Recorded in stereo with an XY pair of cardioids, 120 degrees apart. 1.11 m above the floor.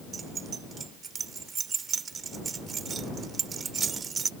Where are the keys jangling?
35° right.